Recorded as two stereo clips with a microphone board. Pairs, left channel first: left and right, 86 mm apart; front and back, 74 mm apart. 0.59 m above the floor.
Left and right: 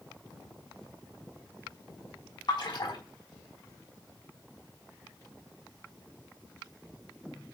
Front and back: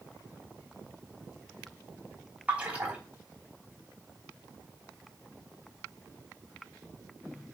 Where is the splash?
110° left, 3 m.